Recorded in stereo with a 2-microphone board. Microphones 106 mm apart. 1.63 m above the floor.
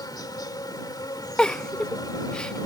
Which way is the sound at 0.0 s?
40° left (ahead or behind).